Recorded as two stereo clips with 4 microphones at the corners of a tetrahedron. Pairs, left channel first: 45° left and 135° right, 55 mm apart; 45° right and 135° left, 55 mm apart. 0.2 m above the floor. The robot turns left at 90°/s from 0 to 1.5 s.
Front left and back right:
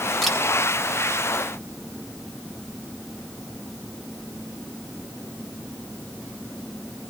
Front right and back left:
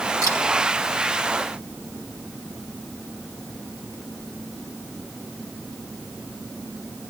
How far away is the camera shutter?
About 7 m.